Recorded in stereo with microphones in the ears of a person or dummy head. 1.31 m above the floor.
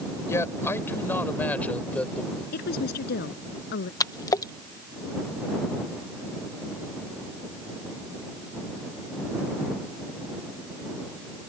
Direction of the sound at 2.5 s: 55° left (ahead or behind).